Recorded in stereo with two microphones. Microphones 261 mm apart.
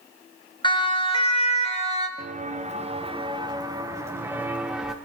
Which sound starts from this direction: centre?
A siren, at 0.6 s.